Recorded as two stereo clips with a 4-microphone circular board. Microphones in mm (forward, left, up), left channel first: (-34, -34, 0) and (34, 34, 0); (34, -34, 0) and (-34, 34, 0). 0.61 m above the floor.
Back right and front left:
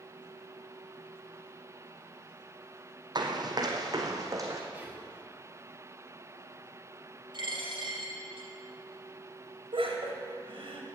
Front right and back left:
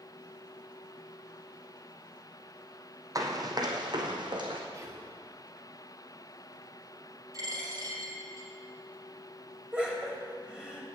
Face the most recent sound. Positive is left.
turn(degrees=55)